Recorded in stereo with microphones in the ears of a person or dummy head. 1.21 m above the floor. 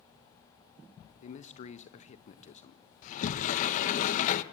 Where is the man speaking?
40° left (ahead or behind), 1.1 m.